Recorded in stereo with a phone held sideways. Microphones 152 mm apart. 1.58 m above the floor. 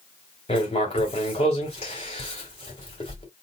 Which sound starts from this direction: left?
Writing, at 0.5 s.